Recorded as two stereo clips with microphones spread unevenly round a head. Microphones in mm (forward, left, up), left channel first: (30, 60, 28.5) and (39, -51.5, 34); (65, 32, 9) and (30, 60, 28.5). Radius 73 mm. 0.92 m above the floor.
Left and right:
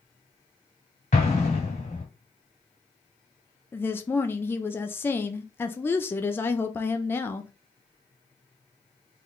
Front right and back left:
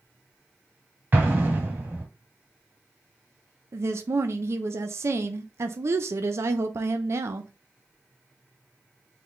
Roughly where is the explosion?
Behind left.